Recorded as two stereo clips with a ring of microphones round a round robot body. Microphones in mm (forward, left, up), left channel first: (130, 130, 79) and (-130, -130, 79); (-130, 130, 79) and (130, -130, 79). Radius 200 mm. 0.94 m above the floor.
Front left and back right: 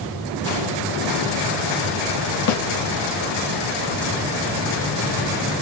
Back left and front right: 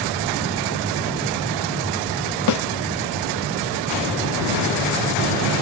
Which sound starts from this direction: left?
A snare drum, at 2.5 s.